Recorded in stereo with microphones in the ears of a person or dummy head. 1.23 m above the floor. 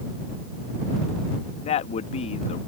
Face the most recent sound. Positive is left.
turn(degrees=40)  # may be behind; listen again after turning